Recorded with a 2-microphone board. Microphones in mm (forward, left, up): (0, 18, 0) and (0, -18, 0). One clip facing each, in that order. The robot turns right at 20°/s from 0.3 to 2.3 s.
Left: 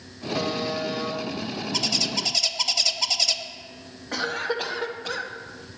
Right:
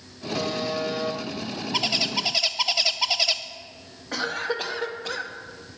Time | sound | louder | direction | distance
0.3 | a buzzer | even | 10° left (ahead or behind) | 1.8 m
1.7 | a bird | right 3 dB | 25° right (ahead or behind) | 0.7 m
4.1 | a cough | even | centre (ahead or behind) | 1.7 m